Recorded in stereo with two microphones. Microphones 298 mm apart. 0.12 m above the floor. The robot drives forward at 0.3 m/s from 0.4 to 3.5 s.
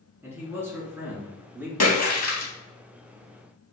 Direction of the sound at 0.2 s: 10° right (ahead or behind).